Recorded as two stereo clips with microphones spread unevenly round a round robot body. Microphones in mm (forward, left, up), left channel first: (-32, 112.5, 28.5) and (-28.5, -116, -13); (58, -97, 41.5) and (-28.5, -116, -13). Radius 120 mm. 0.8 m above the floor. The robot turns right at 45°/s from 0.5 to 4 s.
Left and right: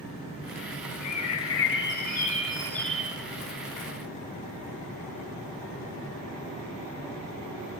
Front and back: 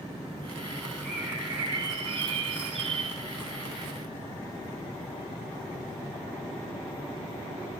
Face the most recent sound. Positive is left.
turn(degrees=-130)